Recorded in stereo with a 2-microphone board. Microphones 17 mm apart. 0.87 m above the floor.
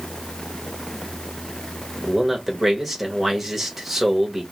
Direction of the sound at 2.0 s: 15° right (ahead or behind).